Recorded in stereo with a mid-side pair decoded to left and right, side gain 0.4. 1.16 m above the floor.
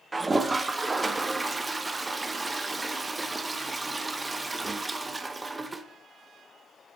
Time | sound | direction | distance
0.1 | a toilet flushing | 20° right | 0.8 m